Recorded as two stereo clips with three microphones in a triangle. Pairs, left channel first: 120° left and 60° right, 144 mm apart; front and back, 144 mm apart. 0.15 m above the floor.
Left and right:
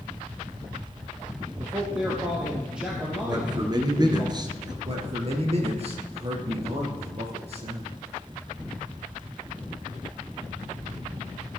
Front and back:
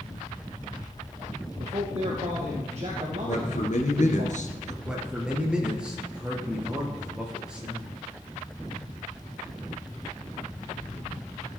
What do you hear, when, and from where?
1.6 s a man speaking: 140° right, 4 m
3.3 s a man speaking: 5° right, 2 m
4.8 s a man speaking: 95° right, 3.5 m